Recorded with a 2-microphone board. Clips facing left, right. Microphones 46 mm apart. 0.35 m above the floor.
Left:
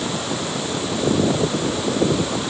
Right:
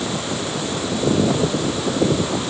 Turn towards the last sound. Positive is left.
No sound to turn to.